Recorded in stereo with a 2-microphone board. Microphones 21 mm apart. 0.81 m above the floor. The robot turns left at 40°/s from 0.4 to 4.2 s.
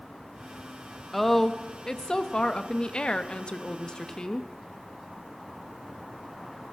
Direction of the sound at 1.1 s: 165° left.